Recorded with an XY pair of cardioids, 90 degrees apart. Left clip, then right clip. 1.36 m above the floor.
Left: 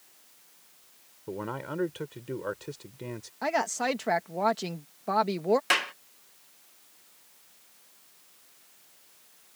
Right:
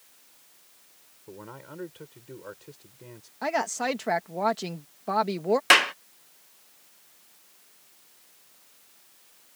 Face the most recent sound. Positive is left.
turn(degrees=-55)